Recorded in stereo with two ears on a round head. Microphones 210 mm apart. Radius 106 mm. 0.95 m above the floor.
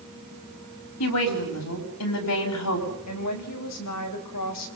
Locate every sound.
1.0 s a woman speaking: 80° left, 5 m
3.1 s a woman speaking: 75° left (ahead or behind), 4 m